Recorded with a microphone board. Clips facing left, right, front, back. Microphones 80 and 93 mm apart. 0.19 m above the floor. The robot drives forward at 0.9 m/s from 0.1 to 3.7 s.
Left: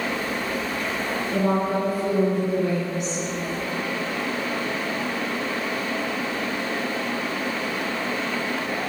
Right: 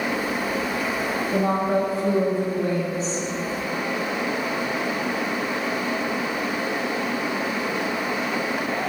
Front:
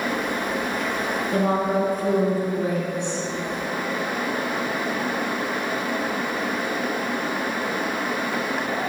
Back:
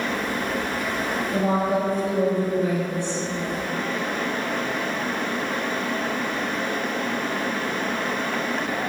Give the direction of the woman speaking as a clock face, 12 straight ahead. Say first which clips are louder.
Right 1 dB, front 1 dB; 1 o'clock.